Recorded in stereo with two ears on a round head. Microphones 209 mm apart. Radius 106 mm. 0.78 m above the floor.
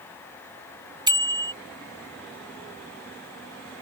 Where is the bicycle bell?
20° right (ahead or behind).